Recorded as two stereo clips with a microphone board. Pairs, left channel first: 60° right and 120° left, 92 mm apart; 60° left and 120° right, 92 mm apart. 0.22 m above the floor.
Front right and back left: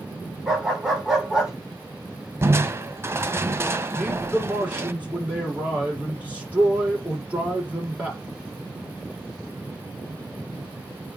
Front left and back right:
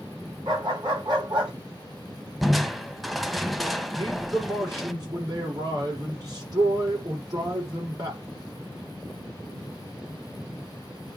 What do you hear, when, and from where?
0.5 s a dog barking: 155° right, 7 m
2.4 s crushing: 150° left, 0.9 m
3.9 s a man speaking: 165° right, 7 m